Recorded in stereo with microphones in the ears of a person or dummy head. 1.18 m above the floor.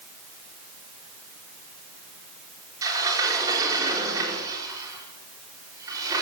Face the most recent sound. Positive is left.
turn(degrees=-15)  # may be behind; listen again after turning